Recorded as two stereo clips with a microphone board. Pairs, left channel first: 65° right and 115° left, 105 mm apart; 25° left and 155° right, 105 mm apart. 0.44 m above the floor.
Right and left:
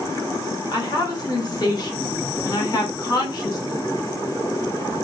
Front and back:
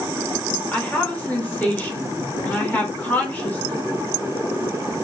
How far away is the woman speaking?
About 0.9 m.